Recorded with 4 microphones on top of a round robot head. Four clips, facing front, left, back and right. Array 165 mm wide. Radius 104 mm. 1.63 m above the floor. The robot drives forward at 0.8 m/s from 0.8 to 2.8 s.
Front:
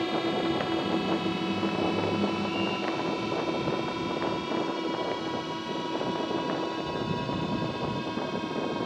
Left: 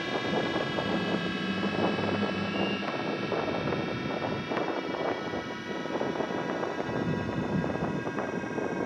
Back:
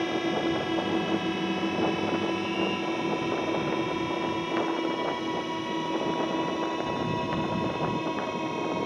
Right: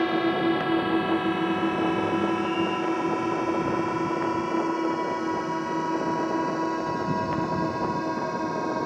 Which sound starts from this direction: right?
A drone, at 0.0 s.